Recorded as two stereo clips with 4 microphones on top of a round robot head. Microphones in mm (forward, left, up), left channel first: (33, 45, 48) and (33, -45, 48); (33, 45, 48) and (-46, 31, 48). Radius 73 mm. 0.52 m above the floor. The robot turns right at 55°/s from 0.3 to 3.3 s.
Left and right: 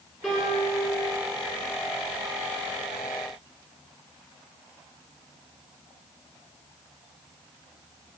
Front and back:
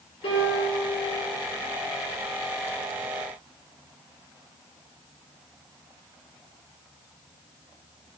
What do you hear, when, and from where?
0.2 s a piano: 10° left, 5 m; by 0.8 s 40° left, 5 m